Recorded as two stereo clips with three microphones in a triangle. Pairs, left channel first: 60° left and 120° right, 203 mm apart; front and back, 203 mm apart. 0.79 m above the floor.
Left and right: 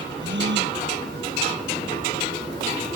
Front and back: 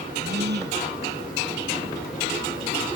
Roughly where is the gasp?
Behind right.